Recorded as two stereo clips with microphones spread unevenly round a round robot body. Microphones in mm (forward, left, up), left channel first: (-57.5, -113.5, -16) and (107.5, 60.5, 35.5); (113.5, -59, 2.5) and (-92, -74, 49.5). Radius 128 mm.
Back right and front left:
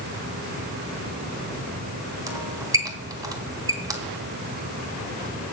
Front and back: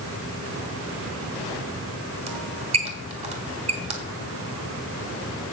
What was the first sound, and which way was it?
A squeak, 120° left.